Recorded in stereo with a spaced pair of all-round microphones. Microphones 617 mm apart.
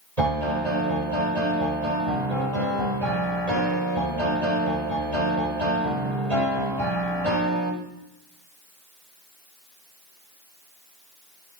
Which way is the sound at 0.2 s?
85° right.